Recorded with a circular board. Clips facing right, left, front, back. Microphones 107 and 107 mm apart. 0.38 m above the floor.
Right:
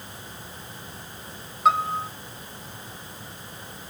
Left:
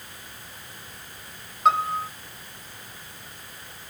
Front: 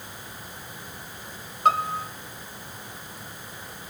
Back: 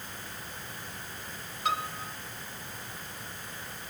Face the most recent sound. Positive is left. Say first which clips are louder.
# even, front 10 dB
turn(degrees=-5)